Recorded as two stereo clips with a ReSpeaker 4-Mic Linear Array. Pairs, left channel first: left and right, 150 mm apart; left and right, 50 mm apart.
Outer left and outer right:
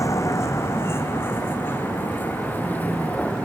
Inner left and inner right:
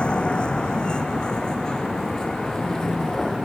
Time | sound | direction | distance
0.0 | a vehicle | 20° left (ahead or behind) | ?